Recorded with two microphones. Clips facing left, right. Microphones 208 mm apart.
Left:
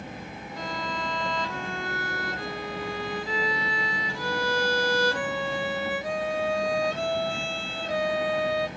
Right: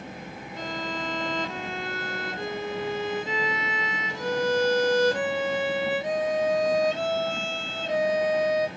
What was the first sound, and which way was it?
A violin, 20° right (ahead or behind).